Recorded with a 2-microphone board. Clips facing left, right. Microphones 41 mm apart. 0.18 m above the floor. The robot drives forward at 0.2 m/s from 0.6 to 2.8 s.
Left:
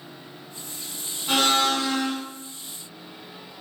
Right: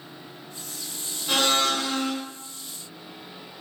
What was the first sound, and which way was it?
A blender, 15° left (ahead or behind).